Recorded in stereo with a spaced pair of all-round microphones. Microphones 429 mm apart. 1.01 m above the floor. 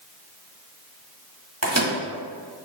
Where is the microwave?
35° right (ahead or behind), 1.7 m.